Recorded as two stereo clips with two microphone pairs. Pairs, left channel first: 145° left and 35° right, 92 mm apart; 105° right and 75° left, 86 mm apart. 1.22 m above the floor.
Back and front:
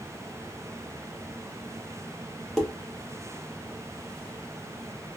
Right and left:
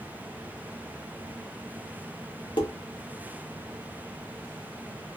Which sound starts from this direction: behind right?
Dishes clattering, at 2.6 s.